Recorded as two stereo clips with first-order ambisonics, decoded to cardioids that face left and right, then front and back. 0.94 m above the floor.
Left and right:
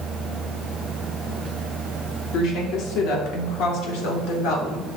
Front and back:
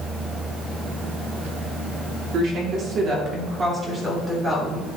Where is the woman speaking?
130° left, 2.5 m; by 4.9 s 100° left, 3 m.